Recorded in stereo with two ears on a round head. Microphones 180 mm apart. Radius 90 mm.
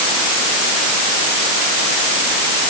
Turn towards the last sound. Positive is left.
No sound to turn to.